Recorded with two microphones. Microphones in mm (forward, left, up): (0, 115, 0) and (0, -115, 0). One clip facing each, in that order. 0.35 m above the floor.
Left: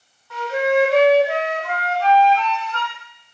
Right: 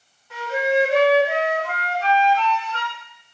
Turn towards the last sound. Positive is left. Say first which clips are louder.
# left 3 dB
turn(degrees=-20)  # may be behind; listen again after turning